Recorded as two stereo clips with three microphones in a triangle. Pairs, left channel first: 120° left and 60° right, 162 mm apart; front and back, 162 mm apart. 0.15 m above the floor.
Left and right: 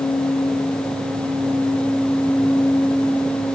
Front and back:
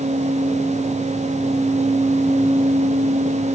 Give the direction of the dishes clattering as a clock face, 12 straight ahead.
I don't hear dishes clattering.